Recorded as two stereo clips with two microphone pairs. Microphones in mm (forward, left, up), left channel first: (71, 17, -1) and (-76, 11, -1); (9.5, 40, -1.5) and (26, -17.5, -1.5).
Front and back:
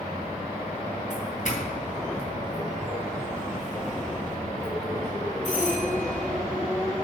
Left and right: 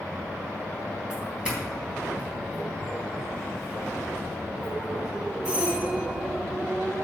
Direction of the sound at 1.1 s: 5° right.